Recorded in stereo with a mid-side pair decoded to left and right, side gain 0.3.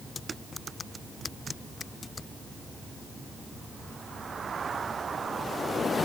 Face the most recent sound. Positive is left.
No sound to turn to.